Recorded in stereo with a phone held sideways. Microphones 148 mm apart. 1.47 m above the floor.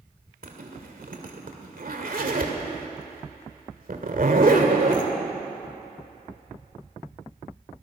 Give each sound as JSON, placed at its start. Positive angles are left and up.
{"t": 0.4, "sound": "a zipper", "side_deg": -65, "distance_m": 2.5}